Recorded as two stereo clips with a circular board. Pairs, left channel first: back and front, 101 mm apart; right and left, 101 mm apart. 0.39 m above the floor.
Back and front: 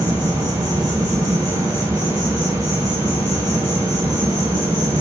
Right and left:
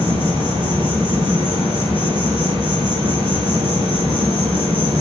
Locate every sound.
0.0 s an insect: 60° left, 1.3 m